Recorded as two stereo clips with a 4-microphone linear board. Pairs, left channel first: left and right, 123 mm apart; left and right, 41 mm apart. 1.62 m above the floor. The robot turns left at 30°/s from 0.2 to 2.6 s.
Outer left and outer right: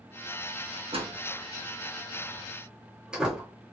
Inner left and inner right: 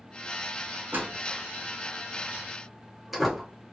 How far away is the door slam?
About 1.1 m.